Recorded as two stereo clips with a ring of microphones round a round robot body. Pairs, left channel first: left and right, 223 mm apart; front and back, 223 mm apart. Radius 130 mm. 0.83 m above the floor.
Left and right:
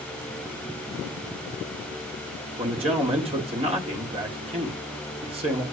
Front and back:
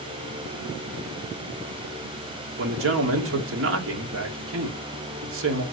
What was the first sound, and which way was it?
A man speaking, 155° right.